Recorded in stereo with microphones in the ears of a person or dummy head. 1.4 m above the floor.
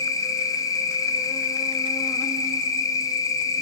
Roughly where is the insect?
Centre.